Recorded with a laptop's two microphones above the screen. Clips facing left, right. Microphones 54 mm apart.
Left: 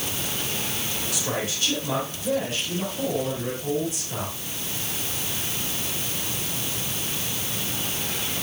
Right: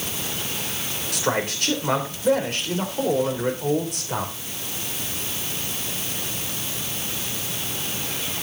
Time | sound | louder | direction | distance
1.1 | a man speaking | right 6 dB | 65° right (ahead or behind) | 3 m